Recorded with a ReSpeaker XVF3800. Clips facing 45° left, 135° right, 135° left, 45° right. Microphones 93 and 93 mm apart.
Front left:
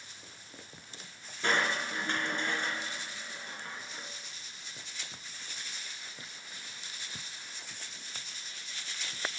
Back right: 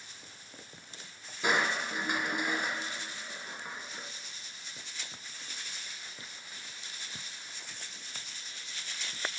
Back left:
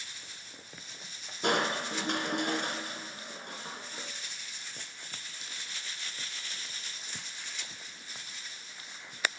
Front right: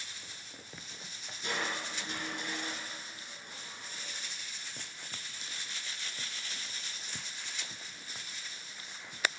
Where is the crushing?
145° left, 3 m.